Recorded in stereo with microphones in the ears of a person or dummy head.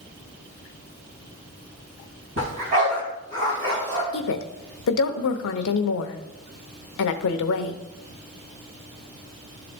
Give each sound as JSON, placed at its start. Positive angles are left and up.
{"t": 2.4, "sound": "a dog barking", "side_deg": -45, "distance_m": 3.0}
{"t": 4.1, "sound": "a woman speaking", "side_deg": 70, "distance_m": 0.8}